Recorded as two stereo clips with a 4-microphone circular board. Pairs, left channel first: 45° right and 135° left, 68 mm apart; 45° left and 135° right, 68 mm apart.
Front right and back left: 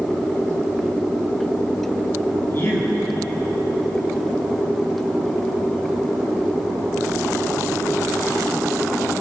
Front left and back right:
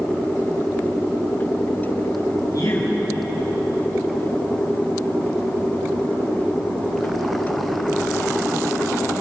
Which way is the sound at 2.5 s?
10° left.